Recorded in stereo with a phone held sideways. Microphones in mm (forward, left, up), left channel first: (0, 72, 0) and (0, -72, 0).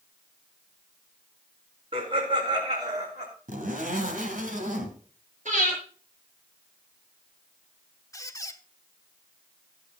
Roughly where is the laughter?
Right.